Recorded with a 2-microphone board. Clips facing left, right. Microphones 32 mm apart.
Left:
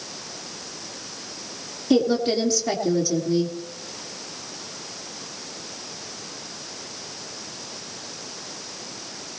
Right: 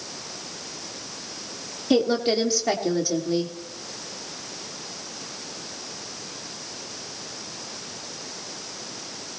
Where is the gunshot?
I don't hear a gunshot.